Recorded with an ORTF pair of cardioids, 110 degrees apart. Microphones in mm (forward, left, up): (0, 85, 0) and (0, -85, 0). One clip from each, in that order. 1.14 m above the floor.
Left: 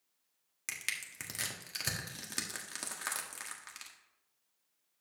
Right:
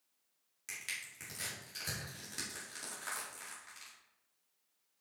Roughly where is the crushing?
Ahead left.